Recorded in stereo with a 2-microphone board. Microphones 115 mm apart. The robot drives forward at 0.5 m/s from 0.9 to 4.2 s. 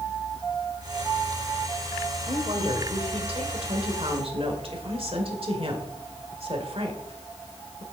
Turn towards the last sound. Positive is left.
turn(degrees=-55)  # may be behind; listen again after turning